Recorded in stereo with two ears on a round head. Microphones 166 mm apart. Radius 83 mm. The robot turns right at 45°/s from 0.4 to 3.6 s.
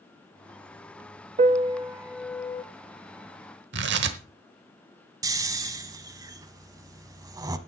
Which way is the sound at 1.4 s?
40° right (ahead or behind).